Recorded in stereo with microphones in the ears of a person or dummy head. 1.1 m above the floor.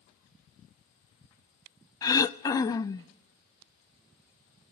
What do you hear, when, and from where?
2.0 s throat clearing: 15° left (ahead or behind), 0.6 m